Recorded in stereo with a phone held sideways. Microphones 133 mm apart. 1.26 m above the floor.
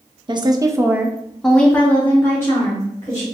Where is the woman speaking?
35° right (ahead or behind), 0.5 m; by 3.3 s 20° left (ahead or behind), 1.6 m.